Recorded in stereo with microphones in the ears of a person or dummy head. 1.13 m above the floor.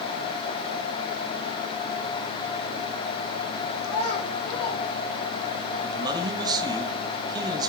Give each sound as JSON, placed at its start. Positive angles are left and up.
{"t": 3.8, "sound": "a child speaking", "side_deg": 80, "distance_m": 1.5}
{"t": 5.8, "sound": "a man speaking", "side_deg": -20, "distance_m": 1.0}